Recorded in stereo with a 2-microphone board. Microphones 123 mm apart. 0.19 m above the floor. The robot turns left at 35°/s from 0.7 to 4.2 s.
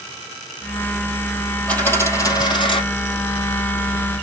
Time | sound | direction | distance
1.7 | a dropped coin | 170° left | 3 m